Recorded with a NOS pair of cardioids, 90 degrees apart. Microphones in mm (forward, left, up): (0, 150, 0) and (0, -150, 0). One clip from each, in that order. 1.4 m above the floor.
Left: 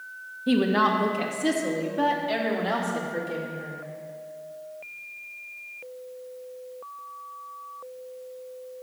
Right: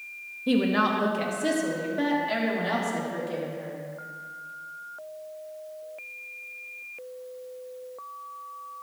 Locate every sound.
0.5 s a woman speaking: straight ahead, 1.9 m